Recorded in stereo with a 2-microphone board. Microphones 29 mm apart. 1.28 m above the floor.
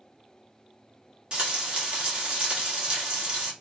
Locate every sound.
1.3 s frying: 30° right (ahead or behind), 1.3 m